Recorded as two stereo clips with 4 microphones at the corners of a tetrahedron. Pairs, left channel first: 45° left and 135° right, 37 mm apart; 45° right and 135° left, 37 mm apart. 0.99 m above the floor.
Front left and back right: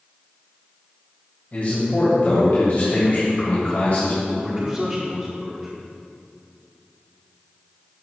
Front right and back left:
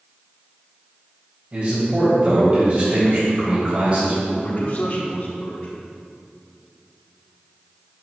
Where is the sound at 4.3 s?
85° right, 1.4 m.